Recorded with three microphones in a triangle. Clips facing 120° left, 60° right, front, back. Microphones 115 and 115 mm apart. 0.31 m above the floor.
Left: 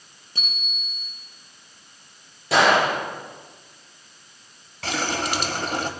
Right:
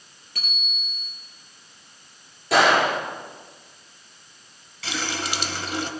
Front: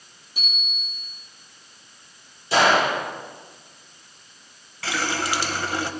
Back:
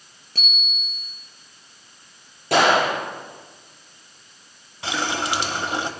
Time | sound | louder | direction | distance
0.3 | a bicycle bell | even, back 3 dB | 170° right | 5 m
2.5 | a gunshot | even, back 1 dB | 150° right | 5.5 m
4.8 | a running tap | left 4 dB, back 1 dB | 115° left | 1.1 m